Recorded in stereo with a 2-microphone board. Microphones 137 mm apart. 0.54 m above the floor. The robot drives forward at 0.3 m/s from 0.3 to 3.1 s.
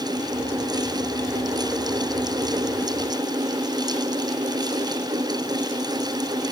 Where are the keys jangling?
I don't hear keys jangling.